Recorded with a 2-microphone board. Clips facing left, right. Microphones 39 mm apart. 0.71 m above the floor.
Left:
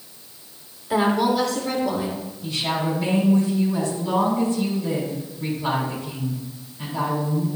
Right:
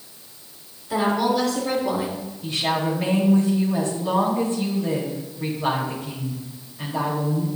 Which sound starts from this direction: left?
A woman speaking, at 0.9 s.